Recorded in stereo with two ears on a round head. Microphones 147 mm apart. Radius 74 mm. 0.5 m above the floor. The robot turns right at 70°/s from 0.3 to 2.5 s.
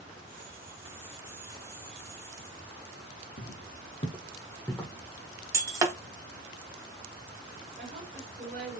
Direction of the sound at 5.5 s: 20° right (ahead or behind).